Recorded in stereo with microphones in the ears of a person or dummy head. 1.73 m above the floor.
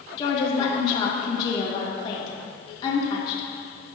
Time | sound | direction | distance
0.2 | a woman speaking | 40° left (ahead or behind) | 2.5 m